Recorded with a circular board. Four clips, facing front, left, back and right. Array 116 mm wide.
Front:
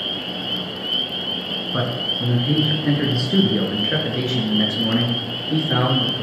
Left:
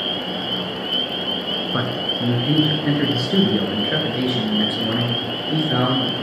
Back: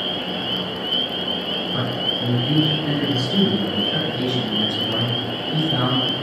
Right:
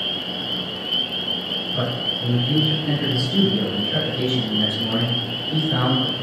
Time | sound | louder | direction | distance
1.7 | a man speaking | left 1 dB, front 3 dB | 70° left | 3 m